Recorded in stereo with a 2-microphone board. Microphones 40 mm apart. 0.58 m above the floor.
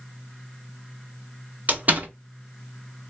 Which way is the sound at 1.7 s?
40° right (ahead or behind).